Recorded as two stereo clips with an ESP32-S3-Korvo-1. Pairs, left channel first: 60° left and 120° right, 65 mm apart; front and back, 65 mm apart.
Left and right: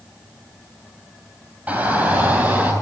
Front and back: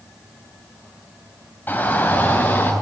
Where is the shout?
55° right, 3.5 m.